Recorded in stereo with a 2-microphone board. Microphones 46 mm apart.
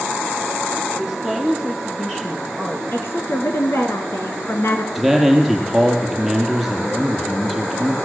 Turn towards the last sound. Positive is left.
turn(degrees=0)  # may be behind; listen again after turning